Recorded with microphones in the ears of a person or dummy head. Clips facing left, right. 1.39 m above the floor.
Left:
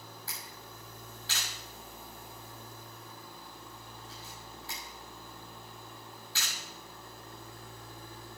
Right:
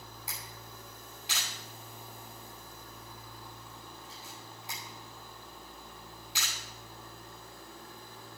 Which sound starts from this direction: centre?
A camera shutter, at 0.3 s.